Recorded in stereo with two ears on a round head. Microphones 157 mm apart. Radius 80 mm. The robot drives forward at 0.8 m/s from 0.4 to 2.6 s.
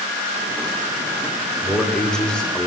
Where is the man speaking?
5° left (ahead or behind), 1.8 m.